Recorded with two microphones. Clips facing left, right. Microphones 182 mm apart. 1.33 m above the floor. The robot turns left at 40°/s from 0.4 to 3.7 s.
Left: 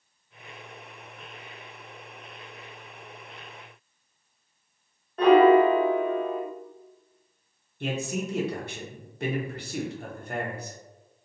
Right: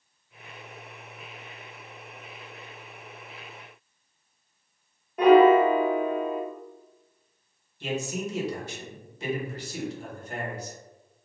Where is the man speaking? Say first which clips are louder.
Even; 55° left (ahead or behind), 0.8 m.